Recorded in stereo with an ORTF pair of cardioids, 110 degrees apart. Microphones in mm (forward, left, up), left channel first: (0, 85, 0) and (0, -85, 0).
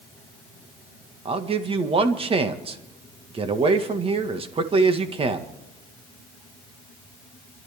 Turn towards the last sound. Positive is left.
turn(degrees=-35)